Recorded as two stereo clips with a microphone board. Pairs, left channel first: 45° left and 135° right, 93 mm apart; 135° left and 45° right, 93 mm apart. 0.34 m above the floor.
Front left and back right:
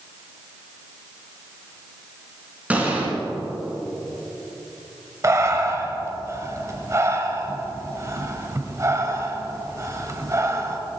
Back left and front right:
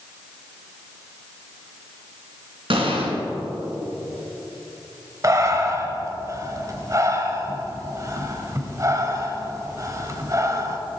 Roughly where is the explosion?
Ahead right.